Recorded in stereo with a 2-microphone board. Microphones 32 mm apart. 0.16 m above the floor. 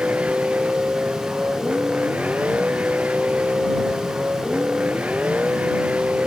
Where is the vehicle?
50° right (ahead or behind).